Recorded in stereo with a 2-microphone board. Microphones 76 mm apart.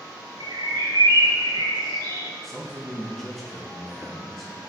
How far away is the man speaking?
About 1.7 m.